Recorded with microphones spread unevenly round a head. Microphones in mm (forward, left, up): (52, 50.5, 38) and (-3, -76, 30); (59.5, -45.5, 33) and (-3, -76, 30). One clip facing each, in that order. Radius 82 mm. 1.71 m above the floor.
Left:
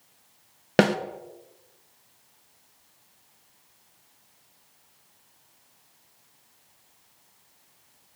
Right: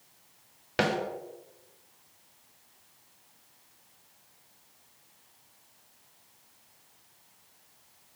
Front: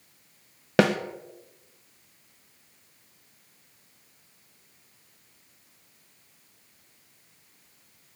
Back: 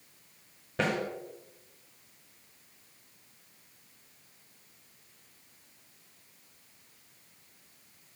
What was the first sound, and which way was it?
A snare drum, 35° left.